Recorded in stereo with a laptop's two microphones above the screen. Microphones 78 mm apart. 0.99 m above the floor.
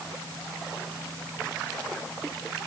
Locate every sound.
Only background noise.